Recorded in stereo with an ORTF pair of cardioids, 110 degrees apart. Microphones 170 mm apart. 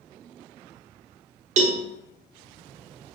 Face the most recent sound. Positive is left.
turn(degrees=-45)